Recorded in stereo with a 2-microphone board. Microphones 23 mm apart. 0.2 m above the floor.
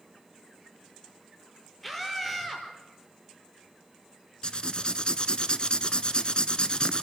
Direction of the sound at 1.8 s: 5° left (ahead or behind).